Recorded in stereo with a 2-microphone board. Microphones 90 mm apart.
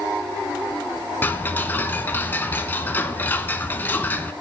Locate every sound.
1.2 s ticking: 20° left (ahead or behind), 0.7 m